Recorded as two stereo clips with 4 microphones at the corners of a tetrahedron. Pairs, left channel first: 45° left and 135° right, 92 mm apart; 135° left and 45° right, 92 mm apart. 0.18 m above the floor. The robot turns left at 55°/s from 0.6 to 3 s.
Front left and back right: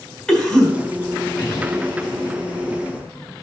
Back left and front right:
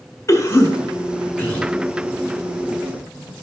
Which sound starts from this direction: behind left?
A cough, at 0.3 s.